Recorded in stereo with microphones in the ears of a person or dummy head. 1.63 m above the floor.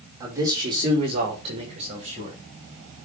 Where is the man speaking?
20° right (ahead or behind), 4.5 m; by 2.4 s 40° right (ahead or behind), 5 m.